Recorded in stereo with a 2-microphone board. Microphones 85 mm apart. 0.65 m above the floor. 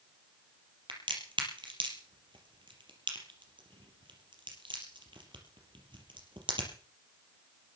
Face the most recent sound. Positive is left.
turn(degrees=-75)  # may be behind; listen again after turning